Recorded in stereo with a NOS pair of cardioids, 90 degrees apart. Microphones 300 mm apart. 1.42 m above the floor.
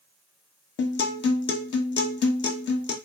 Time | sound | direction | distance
0.8 | a guitar | 40° left | 0.7 m